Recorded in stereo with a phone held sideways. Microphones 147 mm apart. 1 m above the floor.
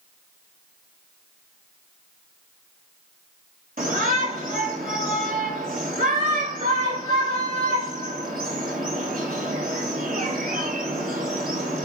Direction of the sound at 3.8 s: 70° right (ahead or behind).